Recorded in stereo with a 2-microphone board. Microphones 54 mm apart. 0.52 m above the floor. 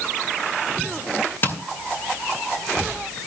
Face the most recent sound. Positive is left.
turn(degrees=45)  # may be behind; listen again after turning